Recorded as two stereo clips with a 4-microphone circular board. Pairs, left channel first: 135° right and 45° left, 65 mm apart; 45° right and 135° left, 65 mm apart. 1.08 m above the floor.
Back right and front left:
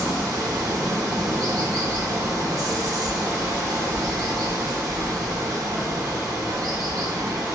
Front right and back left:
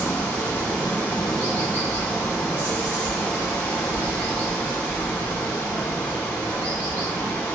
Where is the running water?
20° left, 0.8 m.